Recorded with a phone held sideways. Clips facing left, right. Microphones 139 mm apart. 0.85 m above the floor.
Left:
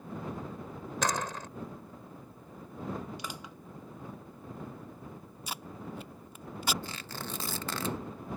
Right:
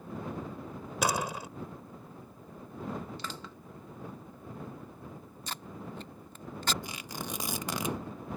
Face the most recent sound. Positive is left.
turn(degrees=-15)  # may be behind; listen again after turning